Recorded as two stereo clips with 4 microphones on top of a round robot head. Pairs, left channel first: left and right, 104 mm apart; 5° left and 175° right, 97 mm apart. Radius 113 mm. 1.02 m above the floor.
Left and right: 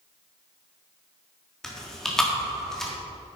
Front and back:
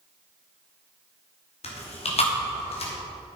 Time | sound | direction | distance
1.6 | chewing | 5° left | 2.5 m